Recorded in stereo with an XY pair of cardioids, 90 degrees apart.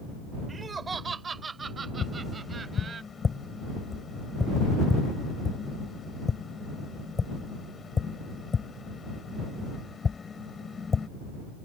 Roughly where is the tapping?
Ahead left.